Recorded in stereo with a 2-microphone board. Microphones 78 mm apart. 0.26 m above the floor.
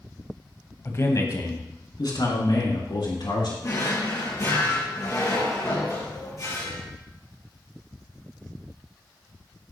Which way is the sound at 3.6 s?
45° left (ahead or behind).